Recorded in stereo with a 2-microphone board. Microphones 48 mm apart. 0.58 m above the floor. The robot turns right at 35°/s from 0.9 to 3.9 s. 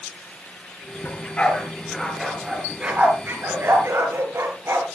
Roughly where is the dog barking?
Left.